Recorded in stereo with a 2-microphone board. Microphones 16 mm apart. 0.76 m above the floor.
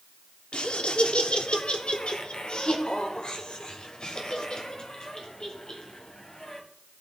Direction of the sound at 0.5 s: 70° left (ahead or behind).